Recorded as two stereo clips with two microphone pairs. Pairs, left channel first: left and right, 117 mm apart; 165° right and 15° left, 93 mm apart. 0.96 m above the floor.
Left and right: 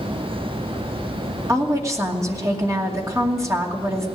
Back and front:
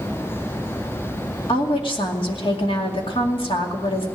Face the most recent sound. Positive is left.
turn(degrees=-155)